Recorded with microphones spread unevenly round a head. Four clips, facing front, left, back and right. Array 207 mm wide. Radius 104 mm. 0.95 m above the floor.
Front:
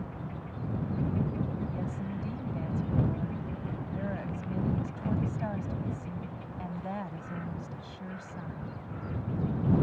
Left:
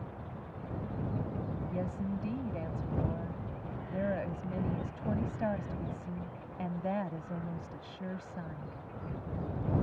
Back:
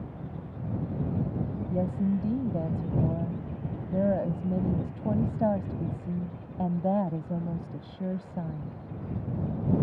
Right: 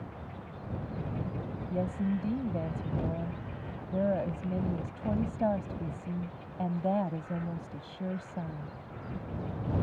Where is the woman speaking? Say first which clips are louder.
Right 7 dB, back 8 dB; 160° right.